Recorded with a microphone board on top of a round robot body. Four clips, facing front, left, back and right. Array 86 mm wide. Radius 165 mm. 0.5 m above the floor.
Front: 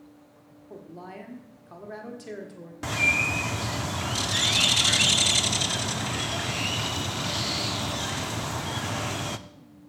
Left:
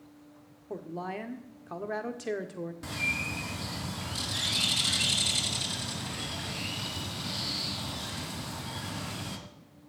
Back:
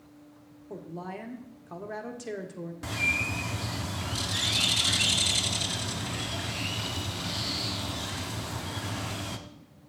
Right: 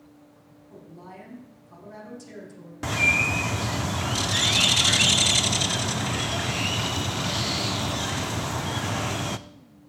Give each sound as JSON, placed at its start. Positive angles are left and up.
{"t": 0.7, "sound": "a woman speaking", "azimuth_deg": 100, "distance_m": 1.6}
{"t": 2.8, "sound": "a bird", "azimuth_deg": -60, "distance_m": 0.6}